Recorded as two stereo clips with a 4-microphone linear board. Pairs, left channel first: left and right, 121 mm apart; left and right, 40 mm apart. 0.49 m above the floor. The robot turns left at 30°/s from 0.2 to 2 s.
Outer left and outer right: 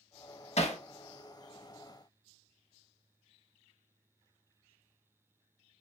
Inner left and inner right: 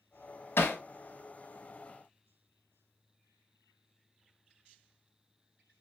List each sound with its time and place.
0.6 s hammering: 65° left (ahead or behind), 0.5 m; by 0.8 s 70° left (ahead or behind), 0.5 m